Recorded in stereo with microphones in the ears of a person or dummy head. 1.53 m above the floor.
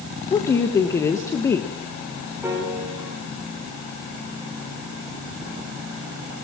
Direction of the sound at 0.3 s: 20° left (ahead or behind).